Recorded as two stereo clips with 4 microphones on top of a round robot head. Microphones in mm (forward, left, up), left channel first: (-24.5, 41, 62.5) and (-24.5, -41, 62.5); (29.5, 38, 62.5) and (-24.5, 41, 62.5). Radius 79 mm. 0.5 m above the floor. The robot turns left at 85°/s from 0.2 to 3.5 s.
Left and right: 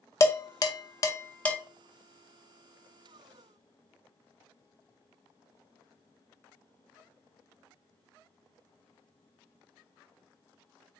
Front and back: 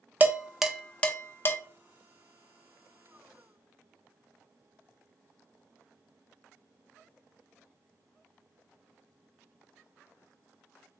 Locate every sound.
0.2 s dishes clattering: 130° left, 0.7 m; by 1.6 s 10° left, 0.7 m